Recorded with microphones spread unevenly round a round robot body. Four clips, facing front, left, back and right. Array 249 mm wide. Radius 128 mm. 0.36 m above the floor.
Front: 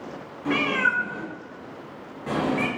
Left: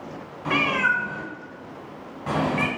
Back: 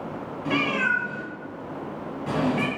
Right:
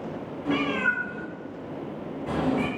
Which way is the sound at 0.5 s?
90° left.